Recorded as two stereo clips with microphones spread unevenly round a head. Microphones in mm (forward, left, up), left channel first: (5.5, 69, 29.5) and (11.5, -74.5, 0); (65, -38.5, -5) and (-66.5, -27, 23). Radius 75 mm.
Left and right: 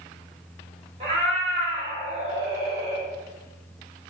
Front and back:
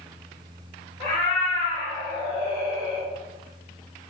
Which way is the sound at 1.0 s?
55° right.